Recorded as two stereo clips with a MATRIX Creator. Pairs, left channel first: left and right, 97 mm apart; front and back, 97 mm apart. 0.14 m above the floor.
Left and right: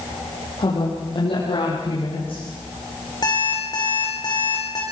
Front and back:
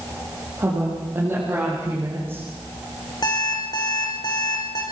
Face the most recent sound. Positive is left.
turn(degrees=45)